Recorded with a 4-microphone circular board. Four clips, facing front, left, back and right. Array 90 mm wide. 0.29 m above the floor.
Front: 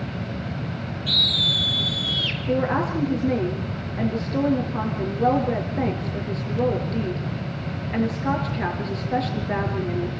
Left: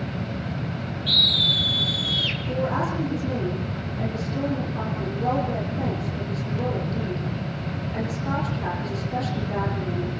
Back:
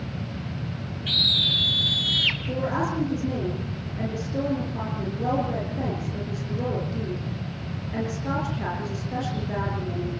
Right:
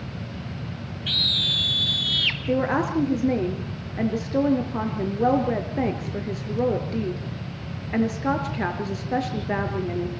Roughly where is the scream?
Right.